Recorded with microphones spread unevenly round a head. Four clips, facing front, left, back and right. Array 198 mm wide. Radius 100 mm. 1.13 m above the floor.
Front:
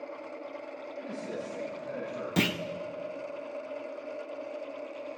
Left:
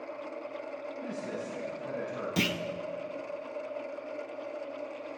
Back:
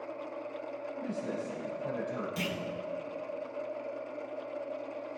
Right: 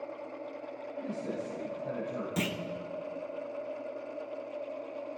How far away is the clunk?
About 0.6 m.